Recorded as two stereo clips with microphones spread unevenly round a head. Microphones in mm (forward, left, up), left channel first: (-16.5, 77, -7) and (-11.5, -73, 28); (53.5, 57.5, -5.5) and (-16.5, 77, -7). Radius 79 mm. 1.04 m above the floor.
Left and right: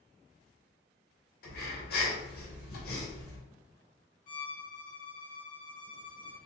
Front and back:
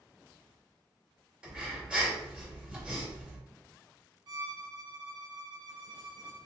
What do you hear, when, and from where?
1.4 s breathing: 85° left, 2 m
4.3 s a violin: 130° left, 1.4 m